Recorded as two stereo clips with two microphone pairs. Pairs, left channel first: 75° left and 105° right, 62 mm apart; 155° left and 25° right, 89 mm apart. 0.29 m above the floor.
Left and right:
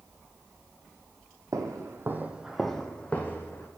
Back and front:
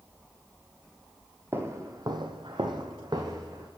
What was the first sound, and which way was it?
Footsteps, 85° right.